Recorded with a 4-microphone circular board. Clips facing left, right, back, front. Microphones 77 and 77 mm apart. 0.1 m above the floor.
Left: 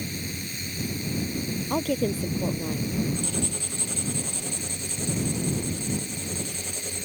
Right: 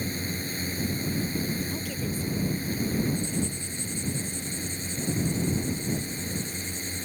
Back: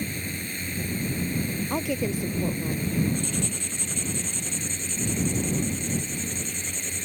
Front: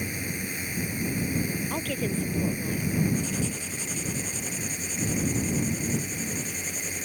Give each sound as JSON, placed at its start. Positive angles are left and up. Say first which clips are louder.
{"t": 0.0, "sound": "a drone", "louder": "right 2 dB, even", "azimuth_deg": -75}
{"t": 1.7, "sound": "a woman speaking", "louder": "left 7 dB, back 3 dB", "azimuth_deg": 105}
{"t": 3.1, "sound": "writing", "louder": "even, even", "azimuth_deg": 85}